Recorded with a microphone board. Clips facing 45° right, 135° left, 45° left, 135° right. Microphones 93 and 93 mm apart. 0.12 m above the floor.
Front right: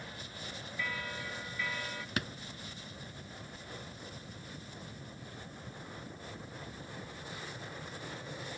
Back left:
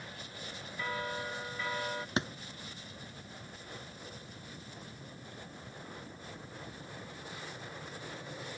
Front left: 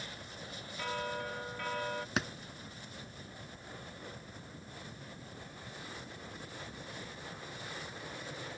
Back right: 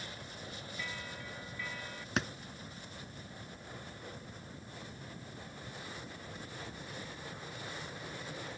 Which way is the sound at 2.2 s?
130° left.